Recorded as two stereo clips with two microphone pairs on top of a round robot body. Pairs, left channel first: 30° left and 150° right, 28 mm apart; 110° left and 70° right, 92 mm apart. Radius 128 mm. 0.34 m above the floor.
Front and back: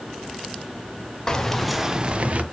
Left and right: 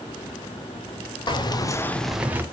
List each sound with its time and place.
1.3 s keys jangling: 100° left, 1.3 m; by 2.4 s 135° right, 1.2 m